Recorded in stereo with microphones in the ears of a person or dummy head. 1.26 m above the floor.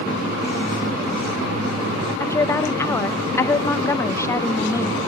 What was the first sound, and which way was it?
A woman speaking, 20° left (ahead or behind).